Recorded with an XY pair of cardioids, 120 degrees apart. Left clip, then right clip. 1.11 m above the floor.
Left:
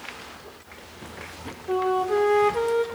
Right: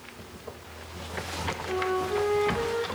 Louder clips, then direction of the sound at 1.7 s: Left 6 dB; 45° left.